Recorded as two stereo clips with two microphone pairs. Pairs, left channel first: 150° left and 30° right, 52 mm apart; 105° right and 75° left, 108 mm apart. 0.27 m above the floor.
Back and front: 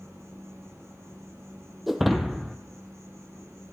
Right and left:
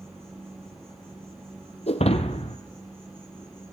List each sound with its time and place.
0.0 s an insect: 5° left, 9 m
1.9 s breaking glass: 120° right, 0.9 m